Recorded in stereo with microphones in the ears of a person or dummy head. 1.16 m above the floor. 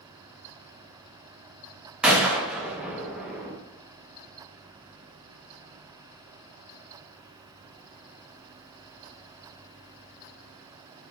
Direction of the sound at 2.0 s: 5° right (ahead or behind).